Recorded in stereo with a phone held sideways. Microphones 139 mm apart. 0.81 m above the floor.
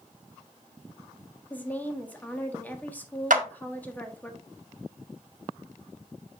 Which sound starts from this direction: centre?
A woman speaking, at 1.5 s.